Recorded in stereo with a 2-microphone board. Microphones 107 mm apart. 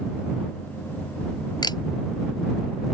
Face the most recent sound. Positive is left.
turn(degrees=40)  # may be behind; listen again after turning